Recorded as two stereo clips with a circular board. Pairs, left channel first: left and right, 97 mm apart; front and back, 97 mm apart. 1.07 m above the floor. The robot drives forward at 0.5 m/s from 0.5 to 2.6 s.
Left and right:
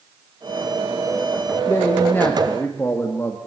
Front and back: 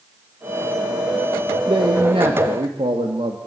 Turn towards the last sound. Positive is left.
turn(degrees=160)